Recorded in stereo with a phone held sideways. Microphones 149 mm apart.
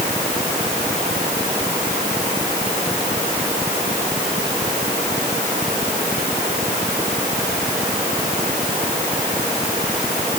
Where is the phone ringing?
I don't hear a phone ringing.